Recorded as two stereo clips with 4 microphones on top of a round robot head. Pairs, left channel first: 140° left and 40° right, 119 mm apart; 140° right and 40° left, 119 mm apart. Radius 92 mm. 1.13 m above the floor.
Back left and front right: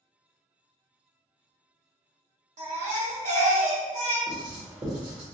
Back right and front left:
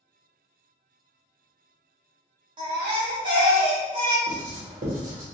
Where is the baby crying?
15° right, 1.0 m.